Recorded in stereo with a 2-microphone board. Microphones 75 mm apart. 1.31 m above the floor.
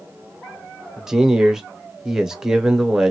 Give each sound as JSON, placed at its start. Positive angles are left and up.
{"t": 1.0, "sound": "a man speaking", "side_deg": -10, "distance_m": 0.9}